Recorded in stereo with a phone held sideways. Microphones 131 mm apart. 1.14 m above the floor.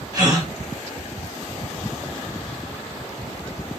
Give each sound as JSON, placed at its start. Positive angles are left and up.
{"t": 0.1, "sound": "a gasp", "side_deg": -30, "distance_m": 2.0}